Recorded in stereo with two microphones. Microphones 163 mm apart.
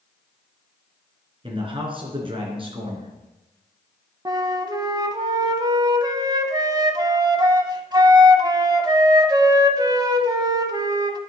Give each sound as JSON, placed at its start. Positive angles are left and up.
{"t": 1.4, "sound": "a man speaking", "side_deg": -35, "distance_m": 2.5}
{"t": 4.2, "sound": "a flute", "side_deg": -25, "distance_m": 0.7}